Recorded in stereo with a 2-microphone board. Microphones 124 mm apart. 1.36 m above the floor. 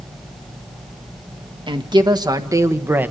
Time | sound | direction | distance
1.7 | a woman speaking | 40° right (ahead or behind) | 1.7 m